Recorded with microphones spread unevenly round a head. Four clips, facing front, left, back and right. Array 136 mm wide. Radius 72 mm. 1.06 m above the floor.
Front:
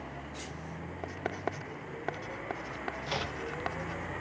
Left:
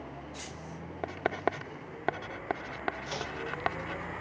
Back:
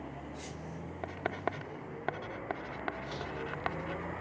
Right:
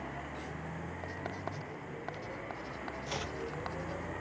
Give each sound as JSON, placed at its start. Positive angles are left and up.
{"t": 1.0, "sound": "writing", "azimuth_deg": 85}
{"t": 3.1, "sound": "chopping", "azimuth_deg": 10}